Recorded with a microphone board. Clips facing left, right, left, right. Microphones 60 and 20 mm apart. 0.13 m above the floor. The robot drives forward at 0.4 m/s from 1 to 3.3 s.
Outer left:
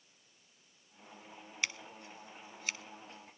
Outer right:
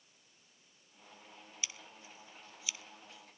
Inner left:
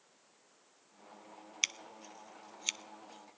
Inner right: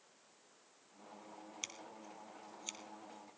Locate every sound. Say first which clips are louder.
1.6 s scissors: outer left 9 dB, inner left 13 dB; 70° left (ahead or behind), 0.5 m; by 3.4 s 40° left (ahead or behind), 0.7 m